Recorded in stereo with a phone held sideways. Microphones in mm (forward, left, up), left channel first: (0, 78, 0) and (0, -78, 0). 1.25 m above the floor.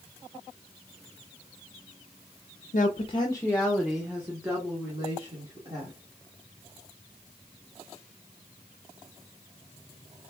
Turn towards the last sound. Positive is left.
turn(degrees=-25)  # may be behind; listen again after turning